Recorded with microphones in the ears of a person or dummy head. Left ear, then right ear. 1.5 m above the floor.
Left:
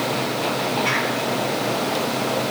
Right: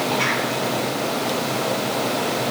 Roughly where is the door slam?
No door slam in this recording.